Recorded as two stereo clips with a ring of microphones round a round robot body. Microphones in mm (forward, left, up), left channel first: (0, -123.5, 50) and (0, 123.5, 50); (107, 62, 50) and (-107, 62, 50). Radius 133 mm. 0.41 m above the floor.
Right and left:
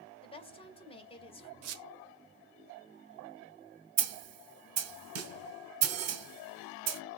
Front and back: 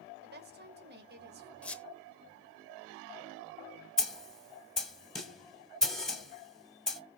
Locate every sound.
0.2 s a woman speaking: 155° right, 2 m
1.6 s a squeak: 85° left, 1.0 m
4.0 s a snare drum: 90° left, 1.7 m